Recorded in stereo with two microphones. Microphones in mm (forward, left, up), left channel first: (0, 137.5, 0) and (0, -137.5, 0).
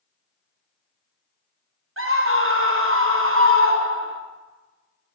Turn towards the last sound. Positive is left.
turn(degrees=-50)  # may be behind; listen again after turning